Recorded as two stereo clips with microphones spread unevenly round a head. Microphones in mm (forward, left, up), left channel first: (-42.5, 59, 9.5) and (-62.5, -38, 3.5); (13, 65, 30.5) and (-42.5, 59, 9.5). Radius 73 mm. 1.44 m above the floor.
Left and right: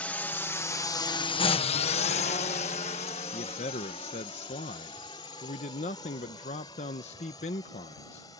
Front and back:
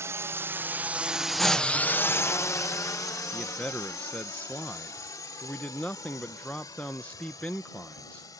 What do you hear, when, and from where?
0.0 s a drone: 155° left; by 8.4 s 10° left
3.3 s a man speaking: 70° left